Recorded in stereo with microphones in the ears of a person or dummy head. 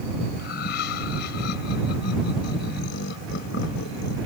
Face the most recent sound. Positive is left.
turn(degrees=65)  # may be behind; listen again after turning